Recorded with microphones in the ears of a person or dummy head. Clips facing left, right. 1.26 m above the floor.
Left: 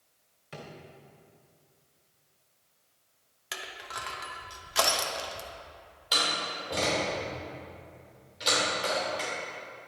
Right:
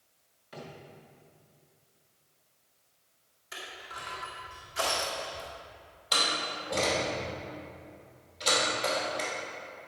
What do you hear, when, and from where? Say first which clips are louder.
0.5 s a drawer: even; 35° left (ahead or behind), 1.5 m
3.5 s crushing: left 3 dB; 85° left, 1.1 m
6.1 s a door slam: even; centre (ahead or behind), 2.5 m